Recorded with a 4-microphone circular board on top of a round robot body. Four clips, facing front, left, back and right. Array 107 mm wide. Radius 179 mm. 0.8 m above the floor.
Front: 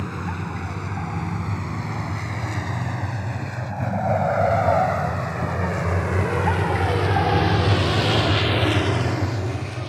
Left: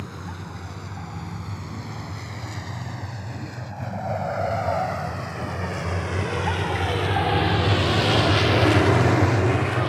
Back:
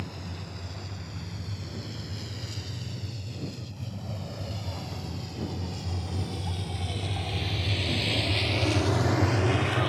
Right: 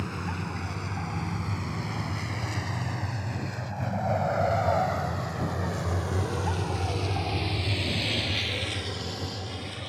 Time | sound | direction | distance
0.0 | a vehicle | 5° right | ?